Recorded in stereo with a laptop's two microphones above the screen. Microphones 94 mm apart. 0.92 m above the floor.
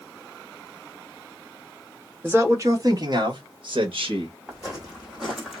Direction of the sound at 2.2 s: 25° right (ahead or behind).